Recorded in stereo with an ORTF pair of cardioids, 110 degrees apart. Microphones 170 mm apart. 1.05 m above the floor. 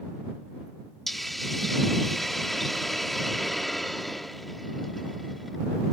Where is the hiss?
Straight ahead.